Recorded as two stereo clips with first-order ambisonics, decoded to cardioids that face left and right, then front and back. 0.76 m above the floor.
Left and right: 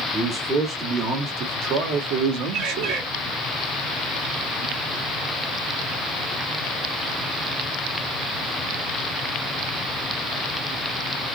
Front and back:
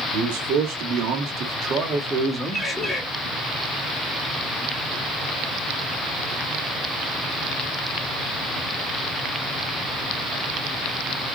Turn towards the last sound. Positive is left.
turn(degrees=-80)